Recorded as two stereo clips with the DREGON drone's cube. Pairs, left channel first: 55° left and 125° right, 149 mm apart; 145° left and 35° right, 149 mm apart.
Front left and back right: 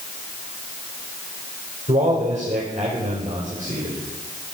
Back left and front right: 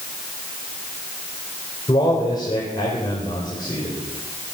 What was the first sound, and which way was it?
A man speaking, 155° right.